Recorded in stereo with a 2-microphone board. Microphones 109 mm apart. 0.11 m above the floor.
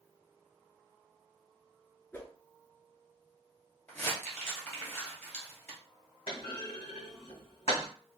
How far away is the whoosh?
About 0.9 m.